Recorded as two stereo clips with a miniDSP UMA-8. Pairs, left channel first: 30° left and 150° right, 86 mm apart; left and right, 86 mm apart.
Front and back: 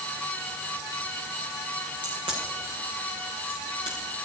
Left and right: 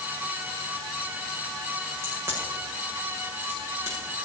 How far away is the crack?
About 7.5 m.